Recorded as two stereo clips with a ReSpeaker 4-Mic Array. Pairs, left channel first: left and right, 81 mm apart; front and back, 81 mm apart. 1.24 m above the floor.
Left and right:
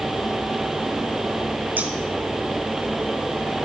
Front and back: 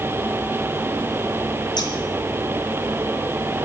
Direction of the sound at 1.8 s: 20° right.